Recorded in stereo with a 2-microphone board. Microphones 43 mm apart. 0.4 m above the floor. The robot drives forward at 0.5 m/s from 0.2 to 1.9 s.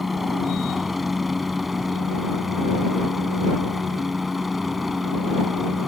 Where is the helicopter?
Centre (ahead or behind).